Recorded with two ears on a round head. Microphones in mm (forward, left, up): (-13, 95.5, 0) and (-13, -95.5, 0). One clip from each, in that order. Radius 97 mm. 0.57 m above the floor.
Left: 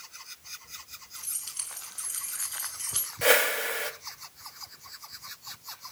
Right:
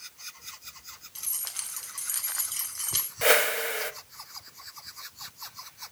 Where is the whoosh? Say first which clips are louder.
Even; 10° right (ahead or behind), 0.7 m.